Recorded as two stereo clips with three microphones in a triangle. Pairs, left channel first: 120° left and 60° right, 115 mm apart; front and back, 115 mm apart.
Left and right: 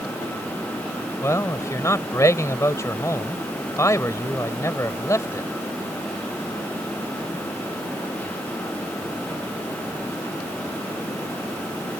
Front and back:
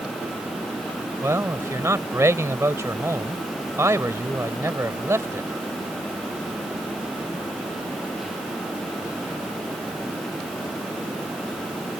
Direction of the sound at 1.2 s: 145° left.